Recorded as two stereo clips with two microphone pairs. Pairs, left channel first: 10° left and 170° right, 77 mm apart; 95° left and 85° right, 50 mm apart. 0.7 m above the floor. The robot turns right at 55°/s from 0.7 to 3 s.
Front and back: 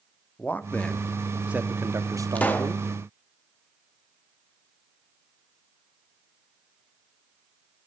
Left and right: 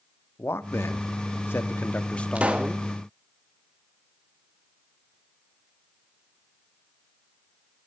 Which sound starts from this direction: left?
A man speaking, at 0.4 s.